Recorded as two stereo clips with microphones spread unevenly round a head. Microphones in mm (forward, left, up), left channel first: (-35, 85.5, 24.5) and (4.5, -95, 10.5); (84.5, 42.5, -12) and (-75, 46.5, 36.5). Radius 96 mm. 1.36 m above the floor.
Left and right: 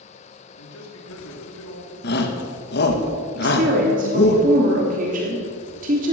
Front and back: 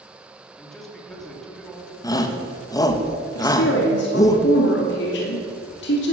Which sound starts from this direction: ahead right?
A woman speaking, at 3.4 s.